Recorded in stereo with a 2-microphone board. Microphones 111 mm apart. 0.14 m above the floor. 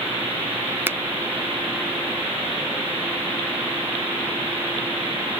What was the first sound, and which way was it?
A finger snap, 20° right (ahead or behind).